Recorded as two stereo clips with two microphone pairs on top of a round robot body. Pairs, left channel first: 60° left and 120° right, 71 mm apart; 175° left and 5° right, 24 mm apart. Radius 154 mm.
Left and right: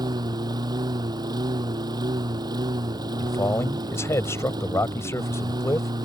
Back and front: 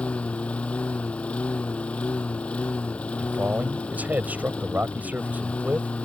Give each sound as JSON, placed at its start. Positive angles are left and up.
{"t": 0.0, "sound": "a lawn mower", "azimuth_deg": -150}
{"t": 3.2, "sound": "a man speaking", "azimuth_deg": 5}